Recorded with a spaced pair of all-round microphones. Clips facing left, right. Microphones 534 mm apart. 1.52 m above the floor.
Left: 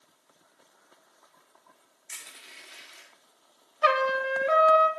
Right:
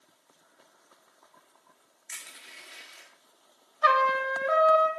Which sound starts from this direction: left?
A trumpet, at 3.8 s.